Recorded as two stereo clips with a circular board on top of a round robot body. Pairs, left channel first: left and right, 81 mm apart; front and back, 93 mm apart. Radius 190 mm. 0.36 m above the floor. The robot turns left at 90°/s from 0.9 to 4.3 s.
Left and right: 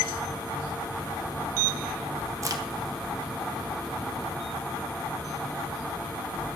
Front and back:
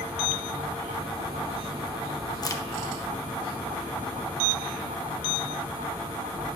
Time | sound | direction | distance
2.4 | a crack | 40° right | 1.3 m